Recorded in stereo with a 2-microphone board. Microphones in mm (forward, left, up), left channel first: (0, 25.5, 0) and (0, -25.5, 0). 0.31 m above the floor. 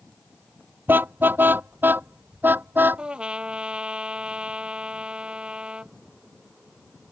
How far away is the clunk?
No clunk in this recording.